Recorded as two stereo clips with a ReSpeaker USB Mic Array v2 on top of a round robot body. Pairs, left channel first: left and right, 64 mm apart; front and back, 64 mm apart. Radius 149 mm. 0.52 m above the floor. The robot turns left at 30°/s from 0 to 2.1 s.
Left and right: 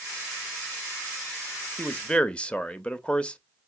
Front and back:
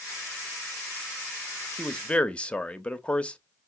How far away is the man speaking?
About 1.0 m.